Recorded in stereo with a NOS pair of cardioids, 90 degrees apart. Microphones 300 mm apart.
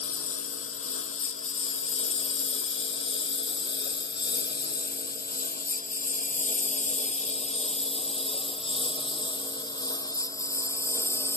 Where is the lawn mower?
50° left; by 11.4 s 5° left.